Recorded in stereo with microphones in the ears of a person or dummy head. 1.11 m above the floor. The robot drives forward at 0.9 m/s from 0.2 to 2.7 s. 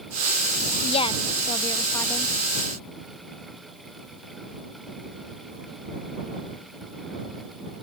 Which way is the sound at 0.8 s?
30° left (ahead or behind).